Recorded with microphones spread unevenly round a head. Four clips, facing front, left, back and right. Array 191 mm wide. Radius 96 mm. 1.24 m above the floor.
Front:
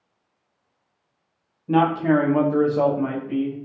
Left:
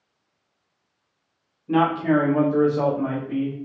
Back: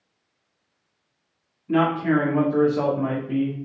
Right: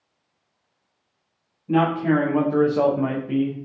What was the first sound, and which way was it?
A man speaking, straight ahead.